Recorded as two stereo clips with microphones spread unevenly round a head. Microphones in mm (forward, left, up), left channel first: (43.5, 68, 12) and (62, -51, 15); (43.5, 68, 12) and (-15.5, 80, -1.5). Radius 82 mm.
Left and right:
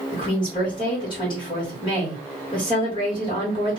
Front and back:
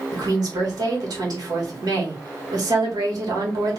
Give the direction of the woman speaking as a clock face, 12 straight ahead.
7 o'clock.